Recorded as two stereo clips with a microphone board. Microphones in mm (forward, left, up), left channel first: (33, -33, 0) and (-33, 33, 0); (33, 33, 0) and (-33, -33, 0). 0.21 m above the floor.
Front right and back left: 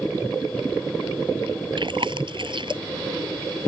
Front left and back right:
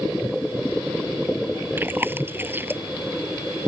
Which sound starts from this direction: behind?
Chewing, at 1.8 s.